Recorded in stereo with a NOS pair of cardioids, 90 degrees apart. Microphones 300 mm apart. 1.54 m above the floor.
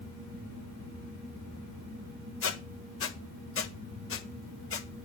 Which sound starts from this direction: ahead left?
A squeak, at 2.4 s.